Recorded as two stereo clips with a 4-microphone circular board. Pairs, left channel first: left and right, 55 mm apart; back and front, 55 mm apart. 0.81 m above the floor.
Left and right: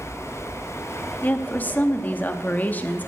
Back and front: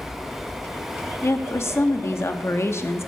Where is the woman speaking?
145° left, 1.0 m.